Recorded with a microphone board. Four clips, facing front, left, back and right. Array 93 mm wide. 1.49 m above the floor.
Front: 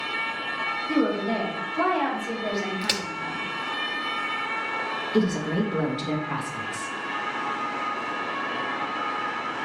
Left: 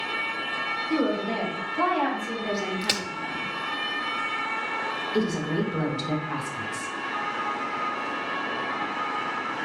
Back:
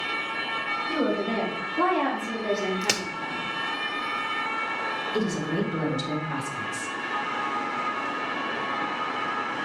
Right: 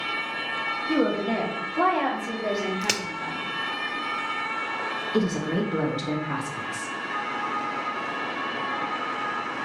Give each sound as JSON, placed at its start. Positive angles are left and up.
{"t": 0.9, "sound": "a woman speaking", "azimuth_deg": -75, "distance_m": 1.6}
{"t": 2.8, "sound": "a crack", "azimuth_deg": -135, "distance_m": 0.6}
{"t": 5.1, "sound": "a woman speaking", "azimuth_deg": -65, "distance_m": 1.2}